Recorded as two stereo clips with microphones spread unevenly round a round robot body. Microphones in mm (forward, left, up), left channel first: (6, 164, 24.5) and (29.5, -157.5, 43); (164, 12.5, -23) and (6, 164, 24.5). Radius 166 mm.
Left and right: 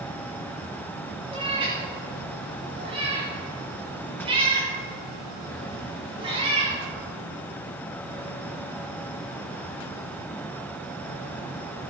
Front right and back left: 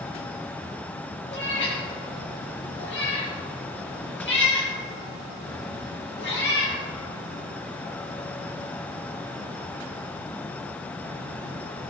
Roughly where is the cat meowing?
Ahead.